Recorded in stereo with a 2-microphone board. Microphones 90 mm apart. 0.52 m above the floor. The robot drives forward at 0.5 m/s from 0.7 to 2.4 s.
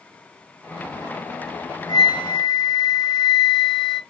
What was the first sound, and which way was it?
A flute, 70° left (ahead or behind).